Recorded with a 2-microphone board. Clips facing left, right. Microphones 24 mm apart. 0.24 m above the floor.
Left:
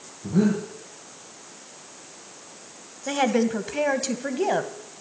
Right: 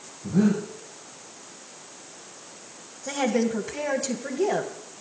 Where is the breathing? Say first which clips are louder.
Even; 55° left (ahead or behind), 6.5 m.